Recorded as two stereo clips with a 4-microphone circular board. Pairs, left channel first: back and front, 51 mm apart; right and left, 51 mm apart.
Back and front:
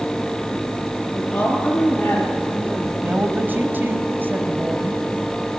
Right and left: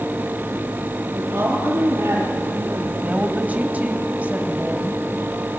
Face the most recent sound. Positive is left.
turn(degrees=40)